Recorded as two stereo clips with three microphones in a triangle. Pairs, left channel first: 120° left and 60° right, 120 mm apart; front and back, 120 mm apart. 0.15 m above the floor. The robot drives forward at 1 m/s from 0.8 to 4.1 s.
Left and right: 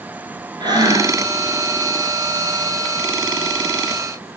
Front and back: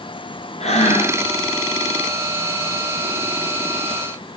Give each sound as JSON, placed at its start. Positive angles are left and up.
{"t": 0.6, "sound": "breathing", "azimuth_deg": -10, "distance_m": 1.9}